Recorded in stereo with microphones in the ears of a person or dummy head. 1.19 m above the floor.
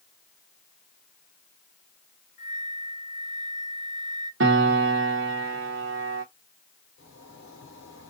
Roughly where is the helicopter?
No helicopter in this recording.